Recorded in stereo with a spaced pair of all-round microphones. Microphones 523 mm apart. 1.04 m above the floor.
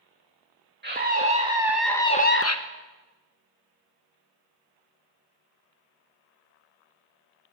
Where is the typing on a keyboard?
No typing on a keyboard in this recording.